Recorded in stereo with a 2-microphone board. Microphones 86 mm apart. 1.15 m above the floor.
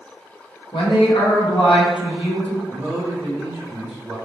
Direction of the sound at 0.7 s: 80° left.